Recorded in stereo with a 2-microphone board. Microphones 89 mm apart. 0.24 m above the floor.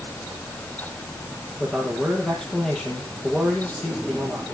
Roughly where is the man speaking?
Centre.